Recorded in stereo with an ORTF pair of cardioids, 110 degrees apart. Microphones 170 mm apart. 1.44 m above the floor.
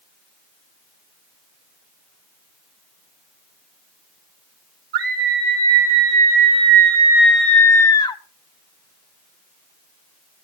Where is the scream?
65° right, 1.4 m; by 8.2 s 30° left, 1.0 m.